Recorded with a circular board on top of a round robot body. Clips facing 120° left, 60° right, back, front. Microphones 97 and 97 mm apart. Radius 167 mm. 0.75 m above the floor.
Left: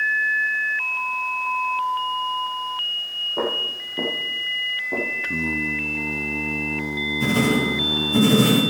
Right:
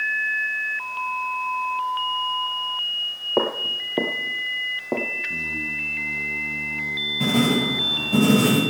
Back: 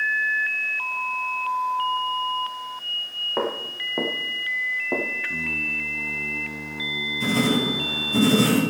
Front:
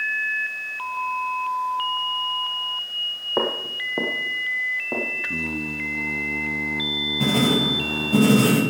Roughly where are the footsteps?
Right.